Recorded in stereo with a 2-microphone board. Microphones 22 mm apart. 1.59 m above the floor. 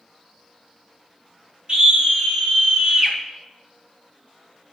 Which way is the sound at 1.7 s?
45° right (ahead or behind).